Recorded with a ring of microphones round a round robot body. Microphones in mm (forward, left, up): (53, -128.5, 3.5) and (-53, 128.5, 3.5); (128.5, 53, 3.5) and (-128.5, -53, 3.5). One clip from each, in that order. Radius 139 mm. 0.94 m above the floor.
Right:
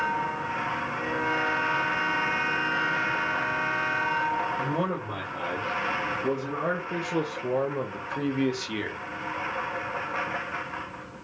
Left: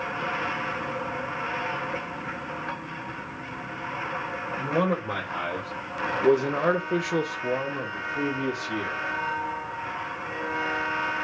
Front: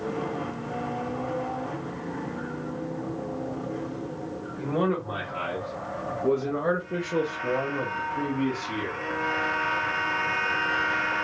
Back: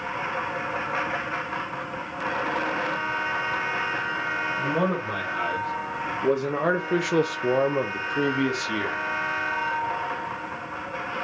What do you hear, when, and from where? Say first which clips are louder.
4.6 s a man speaking: left 3 dB, back 3 dB; 110° left, 1.4 m; by 9.0 s 115° right, 1.2 m